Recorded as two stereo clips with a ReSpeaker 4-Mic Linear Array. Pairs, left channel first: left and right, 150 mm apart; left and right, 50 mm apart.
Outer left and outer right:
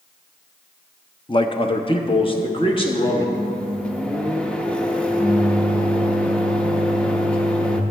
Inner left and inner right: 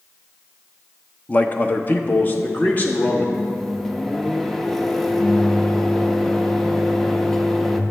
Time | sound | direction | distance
1.3 | a man speaking | 35° left (ahead or behind) | 0.6 m
3.3 | a microwave | 5° left (ahead or behind) | 0.6 m